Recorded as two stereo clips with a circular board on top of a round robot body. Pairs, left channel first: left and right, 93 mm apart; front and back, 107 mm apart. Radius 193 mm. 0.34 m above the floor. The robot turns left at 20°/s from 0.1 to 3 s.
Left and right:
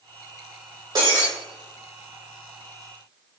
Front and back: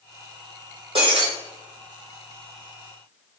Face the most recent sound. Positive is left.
turn(degrees=180)